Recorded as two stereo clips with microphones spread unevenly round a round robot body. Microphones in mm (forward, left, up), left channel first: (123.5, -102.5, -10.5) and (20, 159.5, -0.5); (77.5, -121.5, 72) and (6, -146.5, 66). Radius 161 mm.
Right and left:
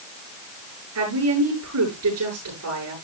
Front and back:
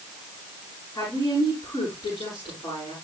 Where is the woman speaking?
80° left, 8 m.